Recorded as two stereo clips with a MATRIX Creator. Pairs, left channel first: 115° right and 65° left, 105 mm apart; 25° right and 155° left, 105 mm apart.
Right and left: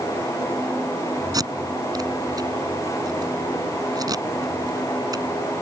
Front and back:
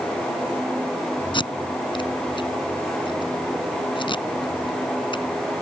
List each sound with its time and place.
1.3 s tape being pulled: 15° left